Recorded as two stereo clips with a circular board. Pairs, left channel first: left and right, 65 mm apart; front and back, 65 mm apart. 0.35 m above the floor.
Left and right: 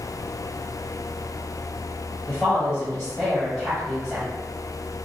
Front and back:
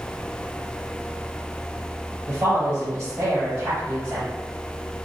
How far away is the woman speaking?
About 1.1 m.